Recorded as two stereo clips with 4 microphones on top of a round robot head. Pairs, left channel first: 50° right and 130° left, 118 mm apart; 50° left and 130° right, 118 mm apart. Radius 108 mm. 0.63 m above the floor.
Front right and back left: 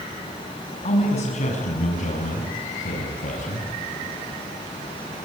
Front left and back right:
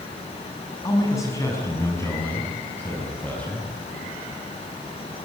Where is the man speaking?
15° right, 6.5 m; by 3.7 s 30° right, 5.5 m.